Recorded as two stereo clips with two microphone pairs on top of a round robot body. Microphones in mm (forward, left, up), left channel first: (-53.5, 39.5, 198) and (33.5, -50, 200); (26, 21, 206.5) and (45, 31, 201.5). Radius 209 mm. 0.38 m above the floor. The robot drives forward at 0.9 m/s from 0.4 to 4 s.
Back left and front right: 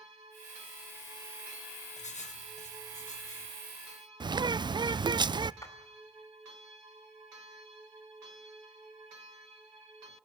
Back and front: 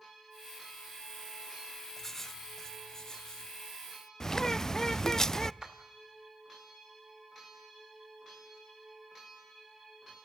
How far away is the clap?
About 2.5 m.